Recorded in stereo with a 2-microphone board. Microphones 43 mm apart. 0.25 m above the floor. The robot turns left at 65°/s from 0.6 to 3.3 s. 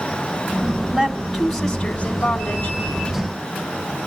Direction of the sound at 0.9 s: 150° right.